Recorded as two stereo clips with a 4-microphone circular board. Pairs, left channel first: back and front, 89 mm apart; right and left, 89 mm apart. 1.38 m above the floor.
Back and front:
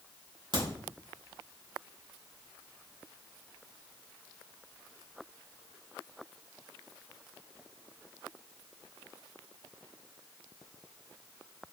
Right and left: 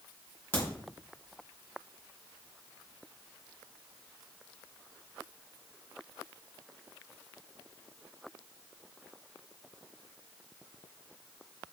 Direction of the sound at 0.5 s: 20° right.